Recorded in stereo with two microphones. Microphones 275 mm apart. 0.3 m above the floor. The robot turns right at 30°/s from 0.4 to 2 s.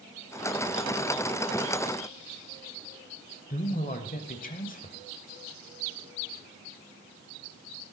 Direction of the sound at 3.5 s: 30° left (ahead or behind).